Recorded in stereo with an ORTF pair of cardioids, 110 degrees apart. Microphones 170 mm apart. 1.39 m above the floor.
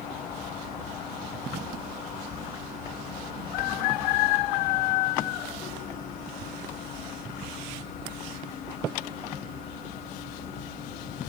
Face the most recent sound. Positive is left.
turn(degrees=65)